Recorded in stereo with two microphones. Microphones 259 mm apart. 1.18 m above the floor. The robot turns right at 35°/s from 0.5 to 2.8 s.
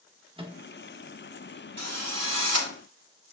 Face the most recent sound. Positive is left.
turn(degrees=-65)